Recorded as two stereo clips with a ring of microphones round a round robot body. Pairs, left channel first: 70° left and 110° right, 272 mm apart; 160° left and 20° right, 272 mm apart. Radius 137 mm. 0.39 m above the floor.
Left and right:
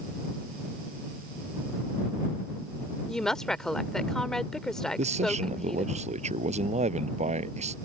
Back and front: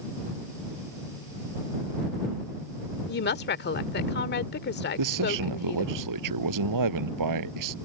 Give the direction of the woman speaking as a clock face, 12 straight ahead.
7 o'clock.